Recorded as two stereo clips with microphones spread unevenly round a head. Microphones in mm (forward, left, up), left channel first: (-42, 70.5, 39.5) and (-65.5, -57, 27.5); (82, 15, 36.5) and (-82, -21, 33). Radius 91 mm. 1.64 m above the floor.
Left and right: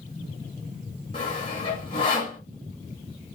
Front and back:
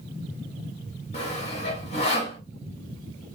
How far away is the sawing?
About 1.5 m.